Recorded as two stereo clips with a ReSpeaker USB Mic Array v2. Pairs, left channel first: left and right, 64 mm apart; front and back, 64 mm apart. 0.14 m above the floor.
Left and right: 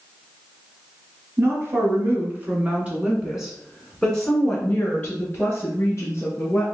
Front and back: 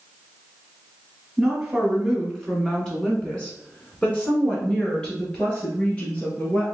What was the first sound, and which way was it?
A woman speaking, 95° right.